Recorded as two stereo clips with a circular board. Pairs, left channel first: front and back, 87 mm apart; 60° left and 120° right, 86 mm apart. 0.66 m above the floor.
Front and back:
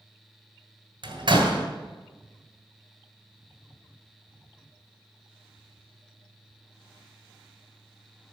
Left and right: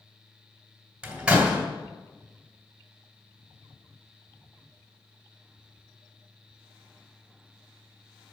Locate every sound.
1.0 s a door slam: 160° left, 2.5 m